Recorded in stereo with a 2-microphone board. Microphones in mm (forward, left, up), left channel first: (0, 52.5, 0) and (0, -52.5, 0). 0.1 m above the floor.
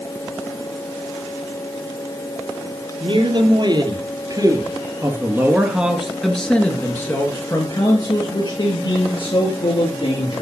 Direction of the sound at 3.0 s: 50° right (ahead or behind).